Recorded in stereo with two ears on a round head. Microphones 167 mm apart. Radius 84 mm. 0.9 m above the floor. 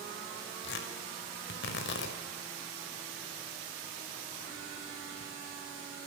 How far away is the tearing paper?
About 5 m.